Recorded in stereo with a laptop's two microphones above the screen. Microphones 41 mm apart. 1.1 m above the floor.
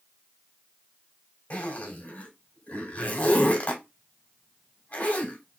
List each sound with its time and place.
1.5 s a zipper: 45° left (ahead or behind), 2.5 m